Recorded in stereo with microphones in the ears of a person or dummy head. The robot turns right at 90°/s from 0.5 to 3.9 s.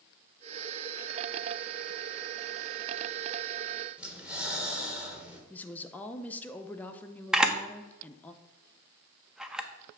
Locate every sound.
4.0 s breathing: 5° right (ahead or behind), 1.3 m
5.5 s a woman speaking: 10° left (ahead or behind), 0.5 m
7.3 s a camera shutter: 5° right (ahead or behind), 0.5 m